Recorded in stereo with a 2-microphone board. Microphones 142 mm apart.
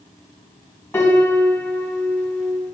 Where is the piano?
15° left (ahead or behind), 1.2 m.